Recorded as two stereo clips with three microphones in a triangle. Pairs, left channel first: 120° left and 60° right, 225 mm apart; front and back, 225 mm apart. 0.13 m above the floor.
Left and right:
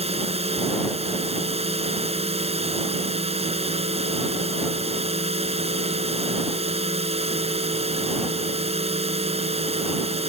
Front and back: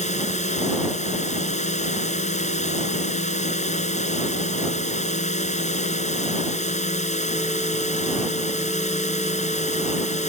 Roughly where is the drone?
Ahead right.